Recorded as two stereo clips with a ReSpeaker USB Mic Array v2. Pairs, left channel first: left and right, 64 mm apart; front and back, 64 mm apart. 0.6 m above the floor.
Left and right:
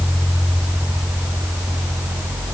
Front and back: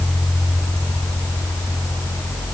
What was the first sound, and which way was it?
Only background noise.